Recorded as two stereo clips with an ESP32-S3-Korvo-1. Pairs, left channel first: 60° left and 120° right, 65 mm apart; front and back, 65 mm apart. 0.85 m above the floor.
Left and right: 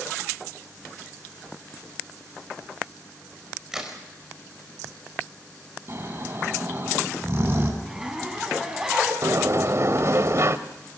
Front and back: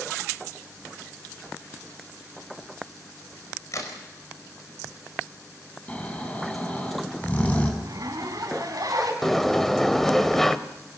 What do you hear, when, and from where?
3.7 s a crack: 35° right, 4.5 m
5.9 s snoring: 70° right, 4 m
7.8 s a zipper: 160° left, 4 m
9.2 s a sliding door: 85° right, 1.1 m